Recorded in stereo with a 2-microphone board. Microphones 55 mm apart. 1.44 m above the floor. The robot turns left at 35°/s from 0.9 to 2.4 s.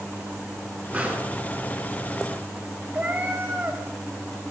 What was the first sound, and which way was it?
A pop, 25° right (ahead or behind).